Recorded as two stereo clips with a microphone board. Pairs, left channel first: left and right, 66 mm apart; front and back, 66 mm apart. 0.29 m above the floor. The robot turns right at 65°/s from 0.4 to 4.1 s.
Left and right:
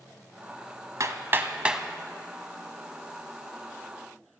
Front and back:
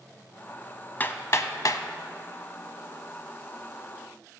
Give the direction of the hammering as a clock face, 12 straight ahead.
2 o'clock.